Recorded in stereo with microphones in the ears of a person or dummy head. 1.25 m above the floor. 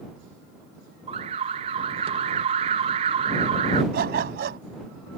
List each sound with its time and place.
1.1 s an alarm: 35° right (ahead or behind)
3.9 s a dog barking: 50° right (ahead or behind)